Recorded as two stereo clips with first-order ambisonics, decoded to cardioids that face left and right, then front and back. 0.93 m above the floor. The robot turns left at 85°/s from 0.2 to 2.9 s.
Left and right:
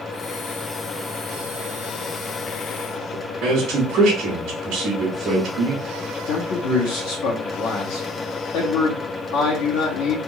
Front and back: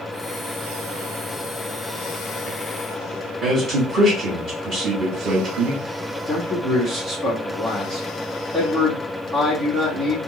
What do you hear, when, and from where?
3.4 s a man speaking: 130° right, 1.3 m
6.3 s a man speaking: 105° left, 1.5 m